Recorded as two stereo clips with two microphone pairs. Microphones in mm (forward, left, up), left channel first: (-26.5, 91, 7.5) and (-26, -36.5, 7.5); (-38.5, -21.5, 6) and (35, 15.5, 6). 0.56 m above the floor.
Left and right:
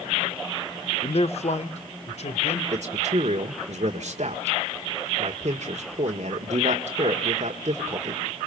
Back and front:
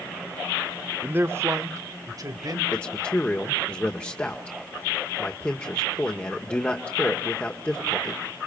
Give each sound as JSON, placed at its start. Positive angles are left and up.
{"t": 1.0, "sound": "a man speaking", "azimuth_deg": 90, "distance_m": 1.1}
{"t": 2.7, "sound": "a man speaking", "azimuth_deg": -85, "distance_m": 1.5}